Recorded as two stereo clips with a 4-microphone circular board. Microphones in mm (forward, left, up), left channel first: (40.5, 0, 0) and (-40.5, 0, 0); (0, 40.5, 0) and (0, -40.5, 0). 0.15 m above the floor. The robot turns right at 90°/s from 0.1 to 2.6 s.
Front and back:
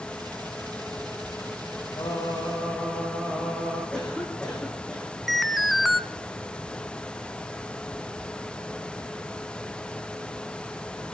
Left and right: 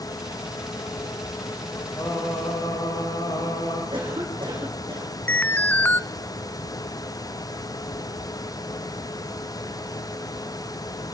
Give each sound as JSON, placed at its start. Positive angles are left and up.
{"t": 2.0, "sound": "singing", "azimuth_deg": 25, "distance_m": 10.0}
{"t": 3.9, "sound": "a cough", "azimuth_deg": -80, "distance_m": 7.5}
{"t": 5.3, "sound": "an alarm", "azimuth_deg": 90, "distance_m": 0.7}